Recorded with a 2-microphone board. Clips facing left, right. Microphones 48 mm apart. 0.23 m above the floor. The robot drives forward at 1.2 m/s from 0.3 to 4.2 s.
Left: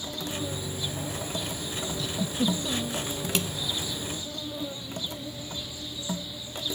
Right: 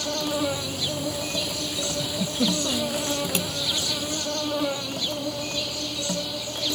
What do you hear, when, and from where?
0.0 s an insect: 75° right (ahead or behind)
2.0 s a giggle: 15° right (ahead or behind); by 3.0 s 20° right (ahead or behind)